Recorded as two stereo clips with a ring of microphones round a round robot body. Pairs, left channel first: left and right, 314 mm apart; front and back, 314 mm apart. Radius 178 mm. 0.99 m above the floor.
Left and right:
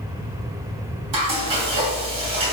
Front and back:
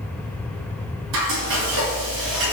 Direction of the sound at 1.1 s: 125° right.